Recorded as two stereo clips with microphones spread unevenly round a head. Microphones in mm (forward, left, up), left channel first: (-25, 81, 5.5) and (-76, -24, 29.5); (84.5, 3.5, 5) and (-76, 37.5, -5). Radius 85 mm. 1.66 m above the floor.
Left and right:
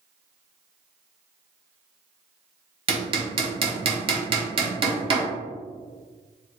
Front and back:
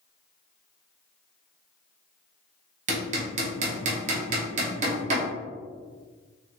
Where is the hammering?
140° right, 0.8 m.